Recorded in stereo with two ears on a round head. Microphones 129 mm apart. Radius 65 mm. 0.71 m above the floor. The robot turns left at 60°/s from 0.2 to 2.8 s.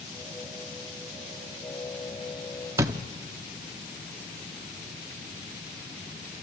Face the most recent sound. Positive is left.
turn(degrees=-20)  # may be behind; listen again after turning